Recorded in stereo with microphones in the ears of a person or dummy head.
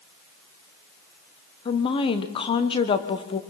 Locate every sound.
1.6 s a woman speaking: 20° left (ahead or behind), 1.2 m